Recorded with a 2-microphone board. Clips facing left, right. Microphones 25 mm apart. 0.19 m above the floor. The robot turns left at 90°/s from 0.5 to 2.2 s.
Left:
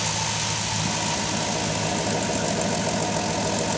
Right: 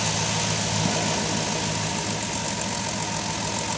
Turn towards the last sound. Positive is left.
turn(degrees=115)